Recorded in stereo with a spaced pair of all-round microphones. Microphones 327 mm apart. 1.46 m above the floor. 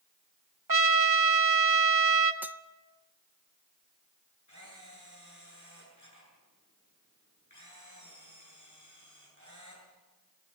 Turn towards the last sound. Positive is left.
turn(degrees=60)  # may be behind; listen again after turning